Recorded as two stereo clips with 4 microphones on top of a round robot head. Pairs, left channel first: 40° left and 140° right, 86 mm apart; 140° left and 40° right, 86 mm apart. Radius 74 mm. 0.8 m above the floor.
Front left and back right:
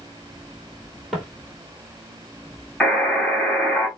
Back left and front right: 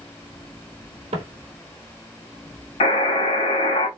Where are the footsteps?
50° right, 1.4 m.